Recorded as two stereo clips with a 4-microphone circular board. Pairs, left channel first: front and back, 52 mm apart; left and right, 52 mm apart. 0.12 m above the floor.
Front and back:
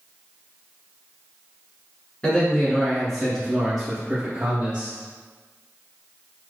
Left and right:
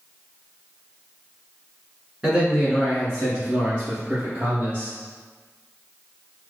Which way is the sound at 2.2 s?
20° right.